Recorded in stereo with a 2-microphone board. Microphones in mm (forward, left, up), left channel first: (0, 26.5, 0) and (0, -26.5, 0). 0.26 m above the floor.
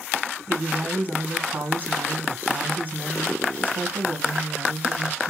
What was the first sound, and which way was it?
A woman speaking, 35° right (ahead or behind).